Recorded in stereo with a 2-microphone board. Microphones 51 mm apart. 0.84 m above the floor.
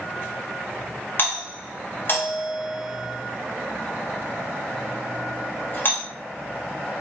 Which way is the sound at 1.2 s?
45° left (ahead or behind).